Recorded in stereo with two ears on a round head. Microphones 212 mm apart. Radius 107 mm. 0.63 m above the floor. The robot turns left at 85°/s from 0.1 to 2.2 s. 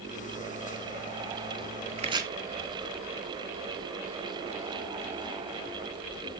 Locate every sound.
2.0 s chopping: 35° right (ahead or behind), 1.1 m; by 2.3 s 15° right (ahead or behind), 1.1 m